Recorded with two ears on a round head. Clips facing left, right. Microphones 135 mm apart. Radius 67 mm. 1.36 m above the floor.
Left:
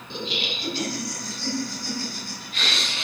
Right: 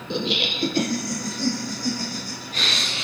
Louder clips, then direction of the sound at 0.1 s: Right 6 dB; 55° right (ahead or behind).